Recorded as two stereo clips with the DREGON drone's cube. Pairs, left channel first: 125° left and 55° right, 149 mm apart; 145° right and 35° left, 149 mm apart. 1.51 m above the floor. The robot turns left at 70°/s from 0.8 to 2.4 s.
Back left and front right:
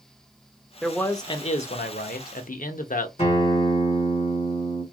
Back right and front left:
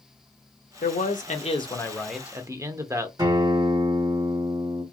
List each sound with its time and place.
0.8 s a man speaking: 145° right, 0.6 m; by 3.1 s 105° left, 0.6 m
3.2 s a guitar: 95° left, 2 m